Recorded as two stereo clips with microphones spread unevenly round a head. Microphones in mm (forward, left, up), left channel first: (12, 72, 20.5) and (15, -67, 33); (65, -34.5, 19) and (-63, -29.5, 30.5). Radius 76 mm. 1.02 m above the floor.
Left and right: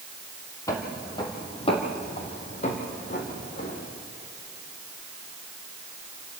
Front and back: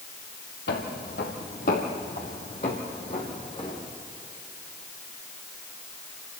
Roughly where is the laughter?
No laughter in this recording.